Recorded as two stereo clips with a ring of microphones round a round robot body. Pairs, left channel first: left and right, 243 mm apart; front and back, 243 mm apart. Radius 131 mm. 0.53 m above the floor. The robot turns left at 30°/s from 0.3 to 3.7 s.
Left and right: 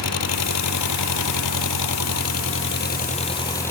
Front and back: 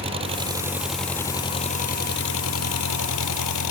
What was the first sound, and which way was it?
An engine running, 110° left.